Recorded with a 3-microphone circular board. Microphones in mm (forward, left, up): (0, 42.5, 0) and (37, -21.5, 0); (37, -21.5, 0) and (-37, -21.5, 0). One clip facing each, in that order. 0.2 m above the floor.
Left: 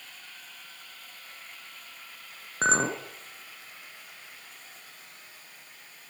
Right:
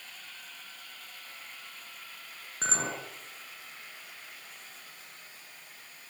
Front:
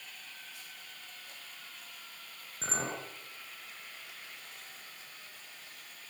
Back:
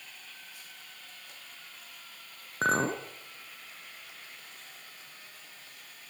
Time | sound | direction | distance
2.6 | a clink | 165° left | 2 m